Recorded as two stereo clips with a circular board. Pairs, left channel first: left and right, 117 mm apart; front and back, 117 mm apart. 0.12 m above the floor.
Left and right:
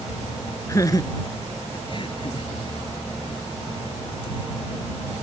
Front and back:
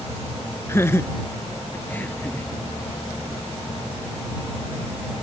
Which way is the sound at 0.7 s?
50° left.